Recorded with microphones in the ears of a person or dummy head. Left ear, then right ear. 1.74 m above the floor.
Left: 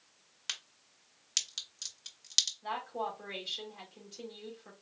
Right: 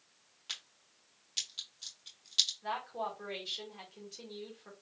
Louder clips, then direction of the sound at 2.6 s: Left 1 dB; 5° right (ahead or behind).